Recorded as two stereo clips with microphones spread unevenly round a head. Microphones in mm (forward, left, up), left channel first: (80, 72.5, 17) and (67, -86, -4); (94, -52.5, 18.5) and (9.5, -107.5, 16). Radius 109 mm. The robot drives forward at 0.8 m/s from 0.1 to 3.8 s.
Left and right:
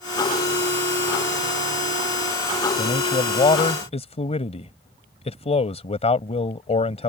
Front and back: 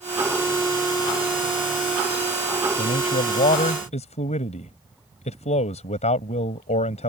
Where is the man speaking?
35° left.